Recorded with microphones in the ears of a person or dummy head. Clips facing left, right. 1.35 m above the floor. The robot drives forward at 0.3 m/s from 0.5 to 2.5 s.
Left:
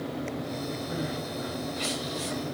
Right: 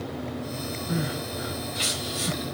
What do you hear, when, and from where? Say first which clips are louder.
0.9 s crying: right 2 dB; 75° right (ahead or behind), 3 m; by 2.4 s 80° right, 3 m